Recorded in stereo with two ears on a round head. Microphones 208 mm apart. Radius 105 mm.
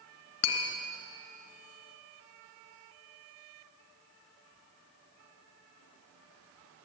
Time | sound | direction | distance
0.4 | tapping | 75° left (ahead or behind) | 2 m